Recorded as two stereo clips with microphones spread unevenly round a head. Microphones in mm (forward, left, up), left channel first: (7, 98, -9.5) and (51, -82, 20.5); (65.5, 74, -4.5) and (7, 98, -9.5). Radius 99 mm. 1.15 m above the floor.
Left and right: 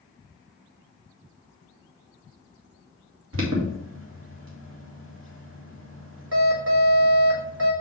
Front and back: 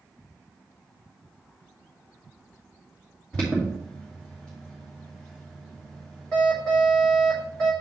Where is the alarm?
105° right, 2 m.